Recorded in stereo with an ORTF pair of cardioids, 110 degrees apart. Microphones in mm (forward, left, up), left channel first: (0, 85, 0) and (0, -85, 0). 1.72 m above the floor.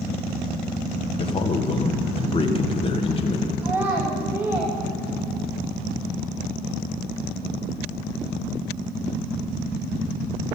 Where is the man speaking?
30° left, 1.9 m.